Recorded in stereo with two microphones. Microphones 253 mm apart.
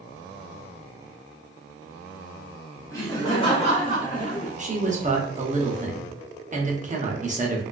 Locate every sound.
2.9 s laughter: 10° left (ahead or behind), 1.6 m; by 4.5 s 30° left (ahead or behind), 1.6 m
4.6 s a man speaking: 30° right (ahead or behind), 0.6 m